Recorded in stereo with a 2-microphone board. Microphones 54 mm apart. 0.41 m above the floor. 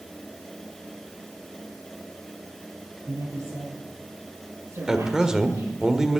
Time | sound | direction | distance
3.1 | a woman speaking | 65° right (ahead or behind) | 7 m
4.9 | a man speaking | 10° right (ahead or behind) | 1.3 m